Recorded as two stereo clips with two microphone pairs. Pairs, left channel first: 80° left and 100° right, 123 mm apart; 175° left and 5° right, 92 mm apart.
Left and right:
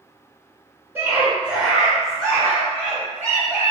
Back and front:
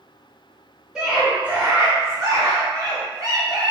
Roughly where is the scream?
Right.